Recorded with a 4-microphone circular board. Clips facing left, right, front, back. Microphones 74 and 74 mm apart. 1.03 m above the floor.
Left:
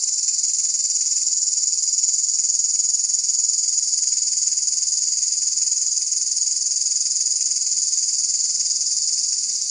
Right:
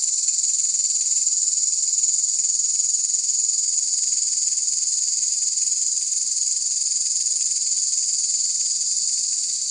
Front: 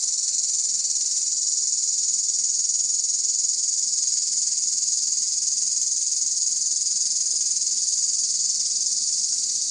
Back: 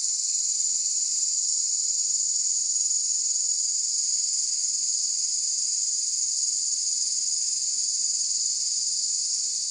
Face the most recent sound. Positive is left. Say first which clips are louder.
# left 1 dB, front 3 dB
turn(degrees=10)